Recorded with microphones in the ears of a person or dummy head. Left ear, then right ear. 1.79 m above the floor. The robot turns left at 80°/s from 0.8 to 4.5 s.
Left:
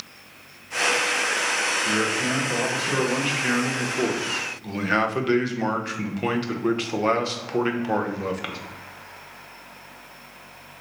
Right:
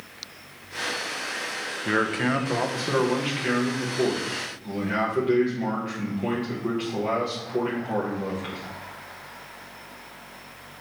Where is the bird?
No bird in this recording.